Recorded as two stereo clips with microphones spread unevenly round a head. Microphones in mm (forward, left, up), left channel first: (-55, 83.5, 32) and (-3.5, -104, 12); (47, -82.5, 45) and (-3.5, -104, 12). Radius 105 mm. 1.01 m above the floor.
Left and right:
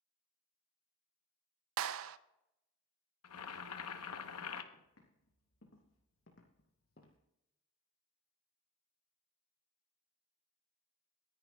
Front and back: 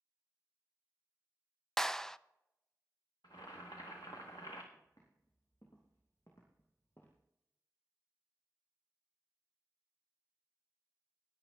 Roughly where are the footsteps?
Left.